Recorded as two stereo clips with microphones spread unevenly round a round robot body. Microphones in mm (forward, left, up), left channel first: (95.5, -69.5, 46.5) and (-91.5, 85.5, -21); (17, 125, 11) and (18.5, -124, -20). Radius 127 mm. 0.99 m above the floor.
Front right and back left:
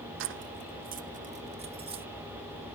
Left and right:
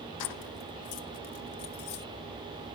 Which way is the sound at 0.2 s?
110° left.